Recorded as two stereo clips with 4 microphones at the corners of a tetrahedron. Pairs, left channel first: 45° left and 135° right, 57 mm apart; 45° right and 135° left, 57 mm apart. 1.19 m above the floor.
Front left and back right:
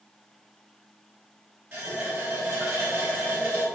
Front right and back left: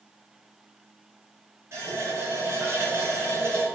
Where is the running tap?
175° left, 3 m.